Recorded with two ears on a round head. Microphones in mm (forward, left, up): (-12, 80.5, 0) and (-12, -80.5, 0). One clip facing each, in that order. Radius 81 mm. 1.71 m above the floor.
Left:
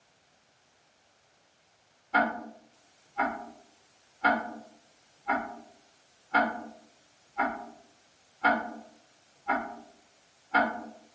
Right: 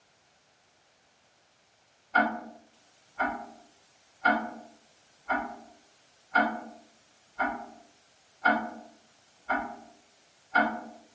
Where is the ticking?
80° left, 1.0 m.